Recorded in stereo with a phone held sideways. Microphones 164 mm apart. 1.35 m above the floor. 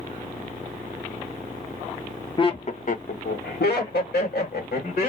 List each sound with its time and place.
2.4 s laughter: 30° left (ahead or behind), 0.7 m; by 5.1 s 75° left (ahead or behind), 1.7 m